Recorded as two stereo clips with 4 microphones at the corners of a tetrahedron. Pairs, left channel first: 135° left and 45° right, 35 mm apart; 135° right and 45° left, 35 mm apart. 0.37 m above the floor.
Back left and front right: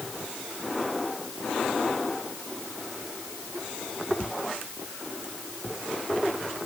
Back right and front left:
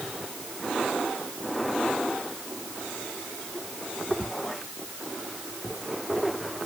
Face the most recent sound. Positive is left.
No sound to turn to.